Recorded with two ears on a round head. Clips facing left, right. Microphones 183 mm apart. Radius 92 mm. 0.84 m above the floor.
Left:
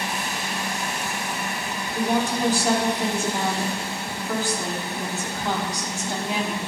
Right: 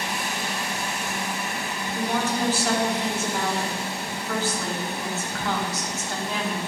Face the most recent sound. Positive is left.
turn(degrees=15)  # may be behind; listen again after turning